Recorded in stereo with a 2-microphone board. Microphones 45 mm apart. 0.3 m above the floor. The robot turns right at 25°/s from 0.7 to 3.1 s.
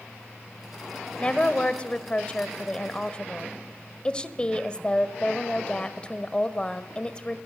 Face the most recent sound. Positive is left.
turn(degrees=20)  # may be behind; listen again after turning